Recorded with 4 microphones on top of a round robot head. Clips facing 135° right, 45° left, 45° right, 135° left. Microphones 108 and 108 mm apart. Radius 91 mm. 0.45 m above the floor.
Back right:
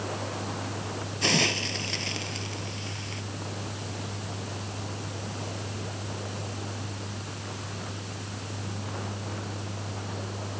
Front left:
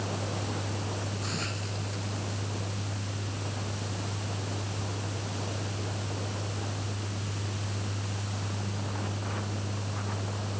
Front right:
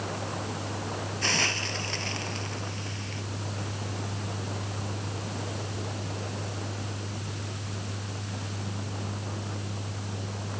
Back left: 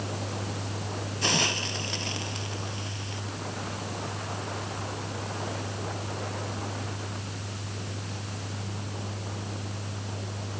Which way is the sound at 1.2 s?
150° right.